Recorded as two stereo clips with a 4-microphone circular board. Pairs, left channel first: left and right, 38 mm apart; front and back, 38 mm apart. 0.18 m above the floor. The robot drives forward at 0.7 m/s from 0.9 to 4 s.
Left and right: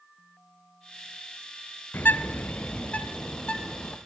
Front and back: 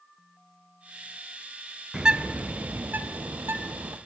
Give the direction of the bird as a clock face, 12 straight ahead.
8 o'clock.